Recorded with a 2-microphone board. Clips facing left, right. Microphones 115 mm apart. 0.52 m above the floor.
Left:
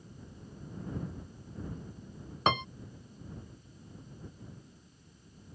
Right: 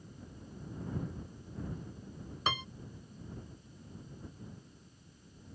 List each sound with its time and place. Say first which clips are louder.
2.5 s a piano: left 7 dB; 60° left (ahead or behind)